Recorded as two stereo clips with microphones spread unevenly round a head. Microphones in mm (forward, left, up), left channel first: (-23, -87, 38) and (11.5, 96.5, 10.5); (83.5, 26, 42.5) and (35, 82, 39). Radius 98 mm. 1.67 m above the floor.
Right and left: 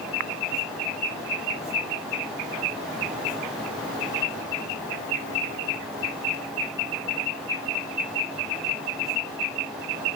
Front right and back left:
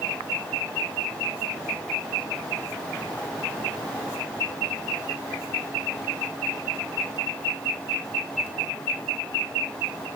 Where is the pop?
No pop in this recording.